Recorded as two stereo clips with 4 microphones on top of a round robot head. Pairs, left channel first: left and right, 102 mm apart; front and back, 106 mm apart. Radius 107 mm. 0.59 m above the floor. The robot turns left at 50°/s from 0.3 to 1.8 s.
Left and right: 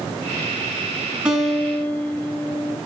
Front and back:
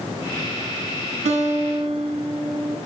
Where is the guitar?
170° right, 5 m; by 2.8 s 160° left, 5 m.